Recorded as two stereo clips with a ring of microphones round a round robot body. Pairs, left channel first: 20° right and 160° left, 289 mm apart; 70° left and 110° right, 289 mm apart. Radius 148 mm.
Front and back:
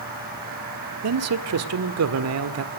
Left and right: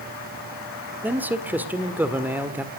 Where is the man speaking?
165° left, 1.8 m.